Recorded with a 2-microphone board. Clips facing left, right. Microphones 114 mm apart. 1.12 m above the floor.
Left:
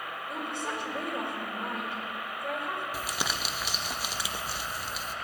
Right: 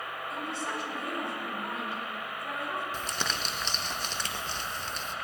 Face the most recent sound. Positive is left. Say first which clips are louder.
# left 1 dB
turn(degrees=10)  # may be behind; listen again after turning